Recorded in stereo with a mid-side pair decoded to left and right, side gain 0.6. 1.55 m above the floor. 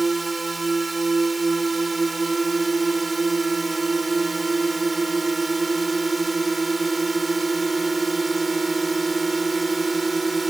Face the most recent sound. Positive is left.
turn(degrees=-15)